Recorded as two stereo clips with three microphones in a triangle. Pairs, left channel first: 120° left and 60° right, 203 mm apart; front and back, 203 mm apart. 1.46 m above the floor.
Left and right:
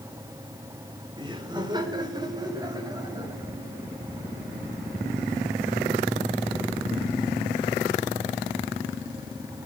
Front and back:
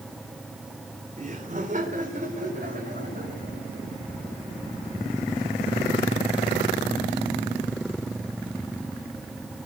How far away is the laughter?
About 3 m.